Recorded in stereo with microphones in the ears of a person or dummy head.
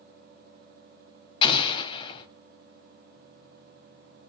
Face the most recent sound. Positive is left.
turn(degrees=30)  # may be behind; listen again after turning